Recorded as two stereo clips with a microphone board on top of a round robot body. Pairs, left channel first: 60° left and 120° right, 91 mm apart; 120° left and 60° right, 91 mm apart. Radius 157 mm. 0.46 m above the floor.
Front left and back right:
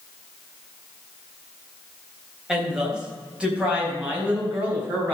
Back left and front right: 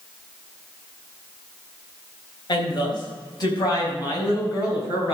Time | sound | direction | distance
2.5 | a woman speaking | 155° left | 4 m